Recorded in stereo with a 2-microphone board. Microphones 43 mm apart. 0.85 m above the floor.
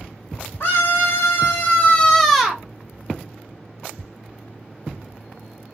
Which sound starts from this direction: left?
A scream, at 0.6 s.